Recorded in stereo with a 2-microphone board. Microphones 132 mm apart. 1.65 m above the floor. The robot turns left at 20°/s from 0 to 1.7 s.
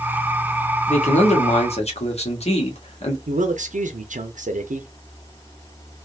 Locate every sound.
0.9 s a man speaking: 65° left (ahead or behind), 1.1 m; by 3.2 s 55° left (ahead or behind), 1.1 m
3.3 s a man speaking: 75° right (ahead or behind), 0.7 m